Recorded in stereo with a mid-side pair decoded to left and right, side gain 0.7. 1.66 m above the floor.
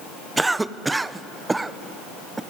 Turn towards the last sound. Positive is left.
turn(degrees=-15)